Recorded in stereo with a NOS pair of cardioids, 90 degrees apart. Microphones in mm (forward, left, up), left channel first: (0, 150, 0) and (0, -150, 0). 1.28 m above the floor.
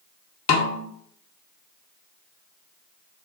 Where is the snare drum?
55° left, 0.7 m.